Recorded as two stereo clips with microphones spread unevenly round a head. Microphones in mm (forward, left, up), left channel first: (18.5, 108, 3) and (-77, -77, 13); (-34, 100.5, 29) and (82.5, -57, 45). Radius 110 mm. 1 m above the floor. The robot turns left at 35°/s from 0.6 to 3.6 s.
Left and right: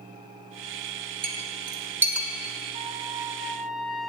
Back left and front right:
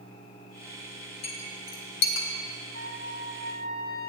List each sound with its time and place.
1.2 s a clink: 170° right, 2 m; by 2.3 s 155° left, 2 m
2.7 s a trumpet: 175° right, 2 m; by 4.1 s 155° left, 2 m